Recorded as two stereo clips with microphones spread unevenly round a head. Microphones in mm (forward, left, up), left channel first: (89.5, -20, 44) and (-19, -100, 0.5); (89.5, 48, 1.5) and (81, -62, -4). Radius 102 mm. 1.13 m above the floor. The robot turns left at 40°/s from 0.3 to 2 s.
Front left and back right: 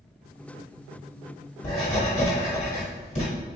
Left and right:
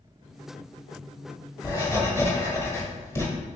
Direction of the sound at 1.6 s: 40° left.